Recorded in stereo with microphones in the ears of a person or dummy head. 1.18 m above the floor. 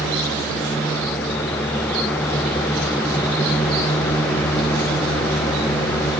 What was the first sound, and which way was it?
Only background noise.